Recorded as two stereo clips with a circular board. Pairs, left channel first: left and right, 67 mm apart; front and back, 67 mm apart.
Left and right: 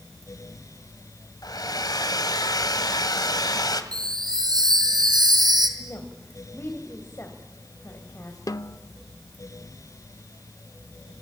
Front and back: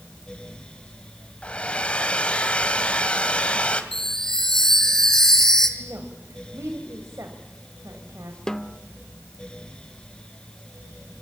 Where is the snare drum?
80° left, 0.8 m.